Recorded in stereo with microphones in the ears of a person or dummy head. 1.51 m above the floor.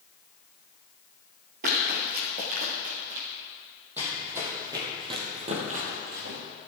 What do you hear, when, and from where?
1.6 s running footsteps: 45° right (ahead or behind), 2 m
4.0 s running footsteps: 5° right (ahead or behind), 3 m; by 6.4 s 50° right (ahead or behind), 2.5 m